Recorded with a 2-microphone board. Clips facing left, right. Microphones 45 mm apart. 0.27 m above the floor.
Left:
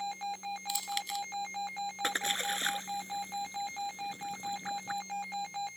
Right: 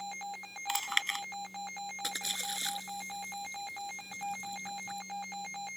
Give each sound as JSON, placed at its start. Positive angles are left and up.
{"t": 0.7, "sound": "chewing", "side_deg": -55}
{"t": 2.0, "sound": "a splash", "side_deg": 40}